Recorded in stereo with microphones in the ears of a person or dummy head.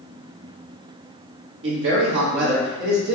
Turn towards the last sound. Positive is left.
turn(degrees=-75)  # may be behind; listen again after turning